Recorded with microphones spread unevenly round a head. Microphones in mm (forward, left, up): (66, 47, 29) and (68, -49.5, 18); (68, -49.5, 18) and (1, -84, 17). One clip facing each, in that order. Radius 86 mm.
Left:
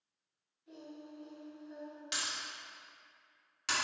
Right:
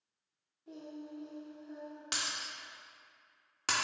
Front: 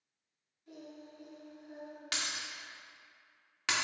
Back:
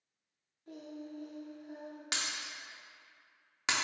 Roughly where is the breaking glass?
Right.